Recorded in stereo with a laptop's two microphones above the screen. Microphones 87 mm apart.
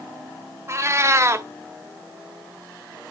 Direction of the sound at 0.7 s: 35° right (ahead or behind).